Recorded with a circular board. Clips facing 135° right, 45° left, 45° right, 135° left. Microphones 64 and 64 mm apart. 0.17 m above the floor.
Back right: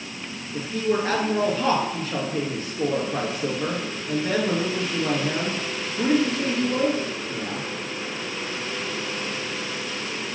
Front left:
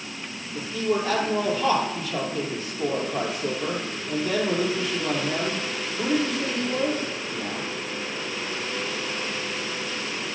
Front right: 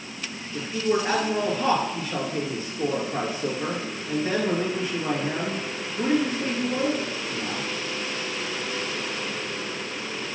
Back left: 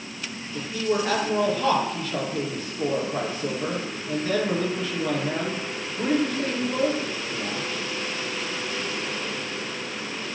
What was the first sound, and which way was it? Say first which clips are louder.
A man speaking: back right 1 dB, front right 1 dB; 110° right.